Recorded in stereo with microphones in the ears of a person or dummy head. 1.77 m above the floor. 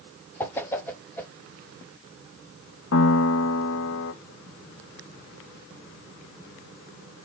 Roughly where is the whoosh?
Centre.